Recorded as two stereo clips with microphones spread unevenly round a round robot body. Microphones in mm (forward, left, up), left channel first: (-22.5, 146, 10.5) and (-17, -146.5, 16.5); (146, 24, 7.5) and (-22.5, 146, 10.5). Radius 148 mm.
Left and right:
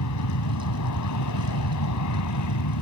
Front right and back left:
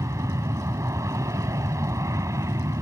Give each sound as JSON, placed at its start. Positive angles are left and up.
{"t": 0.0, "sound": "an aircraft", "azimuth_deg": 70}